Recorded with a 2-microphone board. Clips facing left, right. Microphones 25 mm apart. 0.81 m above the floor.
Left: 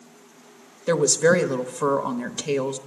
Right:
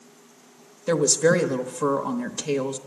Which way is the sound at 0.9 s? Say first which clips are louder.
Left 1 dB; 15° left (ahead or behind).